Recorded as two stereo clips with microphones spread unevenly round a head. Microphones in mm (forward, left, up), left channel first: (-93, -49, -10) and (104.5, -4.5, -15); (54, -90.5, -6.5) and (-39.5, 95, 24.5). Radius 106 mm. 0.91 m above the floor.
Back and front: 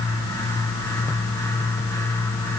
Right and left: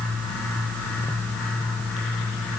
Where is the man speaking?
I don't hear a man speaking.